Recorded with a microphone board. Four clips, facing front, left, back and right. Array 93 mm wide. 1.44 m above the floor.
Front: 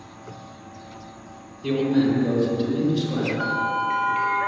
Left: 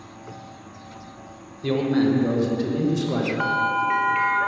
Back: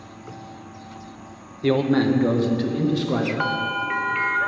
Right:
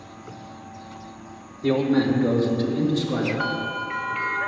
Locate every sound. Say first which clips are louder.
1.6 s a man speaking: even, back 2 dB; 175° right, 1.4 m; by 3.3 s 155° left, 2 m
3.4 s a bell: left 5 dB, front 1 dB; 155° left, 1.4 m